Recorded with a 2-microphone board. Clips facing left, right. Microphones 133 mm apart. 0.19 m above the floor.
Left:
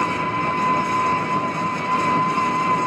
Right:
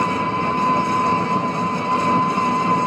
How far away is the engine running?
About 1.0 m.